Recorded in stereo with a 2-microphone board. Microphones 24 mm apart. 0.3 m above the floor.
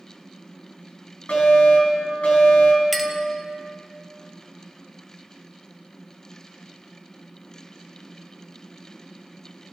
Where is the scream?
No scream in this recording.